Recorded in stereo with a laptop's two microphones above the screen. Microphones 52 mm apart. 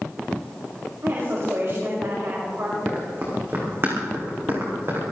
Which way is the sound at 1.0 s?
60° right (ahead or behind).